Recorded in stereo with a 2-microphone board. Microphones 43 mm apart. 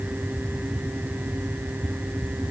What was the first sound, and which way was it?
Only background noise.